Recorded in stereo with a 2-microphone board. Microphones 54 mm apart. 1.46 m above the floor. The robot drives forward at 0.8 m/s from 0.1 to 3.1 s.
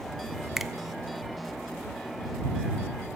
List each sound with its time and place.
0.6 s a finger snap: 5° right (ahead or behind), 0.5 m